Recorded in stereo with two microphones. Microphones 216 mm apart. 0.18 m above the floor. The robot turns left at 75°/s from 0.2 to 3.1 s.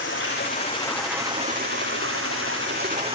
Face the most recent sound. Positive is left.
turn(degrees=-155)